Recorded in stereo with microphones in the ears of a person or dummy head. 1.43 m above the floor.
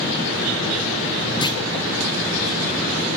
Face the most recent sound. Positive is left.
turn(degrees=20)  # may be behind; listen again after turning